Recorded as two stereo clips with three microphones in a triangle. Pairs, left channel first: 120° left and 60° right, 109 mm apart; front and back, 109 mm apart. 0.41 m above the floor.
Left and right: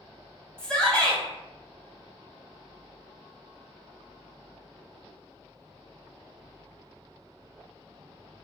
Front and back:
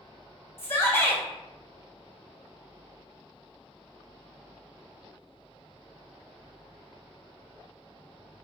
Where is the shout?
45° left, 1.1 m.